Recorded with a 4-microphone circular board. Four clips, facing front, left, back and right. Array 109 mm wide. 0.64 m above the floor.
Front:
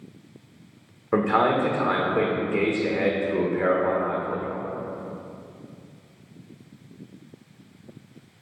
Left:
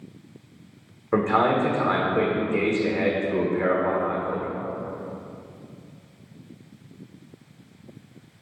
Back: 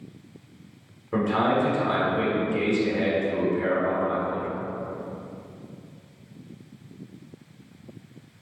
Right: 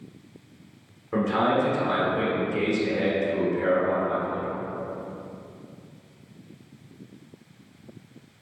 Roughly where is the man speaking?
Ahead left.